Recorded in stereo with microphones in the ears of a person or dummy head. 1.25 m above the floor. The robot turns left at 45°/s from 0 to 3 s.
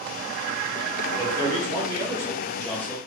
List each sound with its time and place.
1.1 s a man speaking: 115° right, 1.1 m; by 3.0 s 165° left, 1.1 m